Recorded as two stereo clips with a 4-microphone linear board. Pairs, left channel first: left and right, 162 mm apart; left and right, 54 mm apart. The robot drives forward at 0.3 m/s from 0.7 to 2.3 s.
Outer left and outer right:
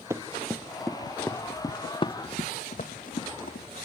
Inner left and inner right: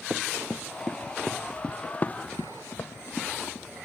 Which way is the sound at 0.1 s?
15° right (ahead or behind).